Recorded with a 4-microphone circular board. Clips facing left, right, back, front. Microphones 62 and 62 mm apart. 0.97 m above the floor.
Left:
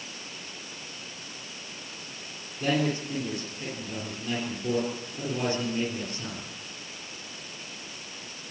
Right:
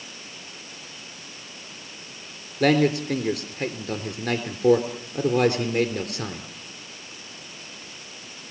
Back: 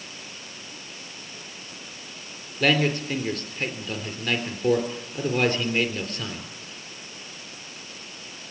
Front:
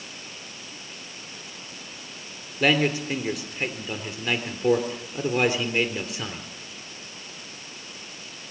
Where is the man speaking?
80° right, 3.5 m.